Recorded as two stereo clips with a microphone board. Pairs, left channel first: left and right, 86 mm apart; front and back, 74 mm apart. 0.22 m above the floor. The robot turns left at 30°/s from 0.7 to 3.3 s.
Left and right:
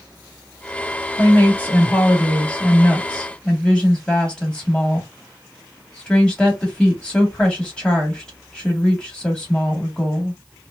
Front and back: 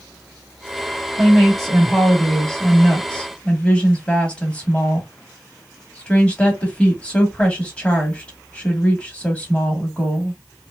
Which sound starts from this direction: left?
A woman speaking, at 1.1 s.